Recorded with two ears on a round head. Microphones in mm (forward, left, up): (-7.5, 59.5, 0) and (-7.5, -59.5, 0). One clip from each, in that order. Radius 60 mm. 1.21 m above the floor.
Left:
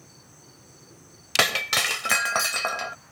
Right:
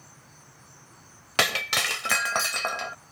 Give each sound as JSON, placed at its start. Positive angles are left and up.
{"t": 1.4, "sound": "breaking glass", "side_deg": 0}